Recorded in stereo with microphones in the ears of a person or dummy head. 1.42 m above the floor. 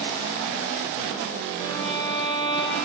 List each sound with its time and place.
1.6 s a violin: 45° left (ahead or behind), 5 m